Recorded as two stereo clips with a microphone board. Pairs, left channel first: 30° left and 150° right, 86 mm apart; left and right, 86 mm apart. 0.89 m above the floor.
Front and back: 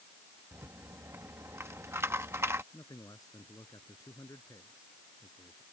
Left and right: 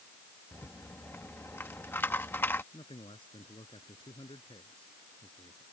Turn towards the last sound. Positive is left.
turn(degrees=75)